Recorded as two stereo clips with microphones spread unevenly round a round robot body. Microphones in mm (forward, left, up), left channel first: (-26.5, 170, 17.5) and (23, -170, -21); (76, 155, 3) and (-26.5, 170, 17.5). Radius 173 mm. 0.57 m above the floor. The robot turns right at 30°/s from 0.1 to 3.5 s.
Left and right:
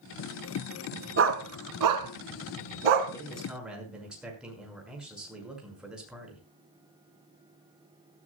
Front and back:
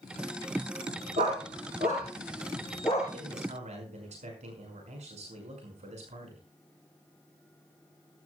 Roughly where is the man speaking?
Behind.